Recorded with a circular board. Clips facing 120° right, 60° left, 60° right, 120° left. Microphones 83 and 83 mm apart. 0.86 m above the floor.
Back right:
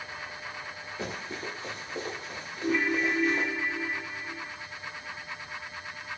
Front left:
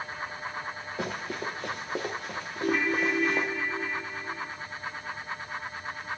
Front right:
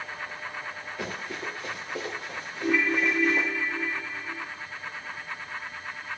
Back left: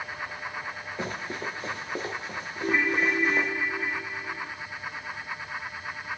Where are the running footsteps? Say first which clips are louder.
Front left 3 dB, back left 2 dB; 60° left, 5.5 m; by 3.5 s 45° left, 4.5 m.